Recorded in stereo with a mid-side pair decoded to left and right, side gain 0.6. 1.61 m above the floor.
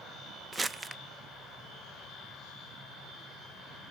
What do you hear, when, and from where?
0.5 s crumpling: 20° right, 0.6 m